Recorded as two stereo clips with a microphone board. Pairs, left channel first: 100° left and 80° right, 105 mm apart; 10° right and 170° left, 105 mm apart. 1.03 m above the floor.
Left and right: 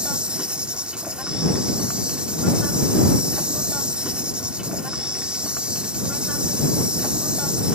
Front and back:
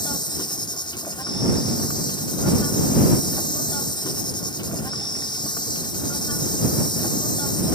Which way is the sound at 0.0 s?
Straight ahead.